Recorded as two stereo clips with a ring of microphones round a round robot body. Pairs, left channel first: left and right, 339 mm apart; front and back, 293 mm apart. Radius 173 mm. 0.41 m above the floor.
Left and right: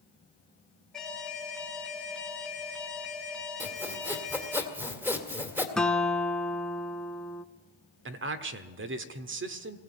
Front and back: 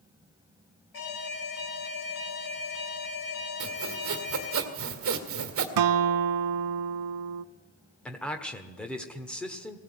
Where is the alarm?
Straight ahead, 4 m.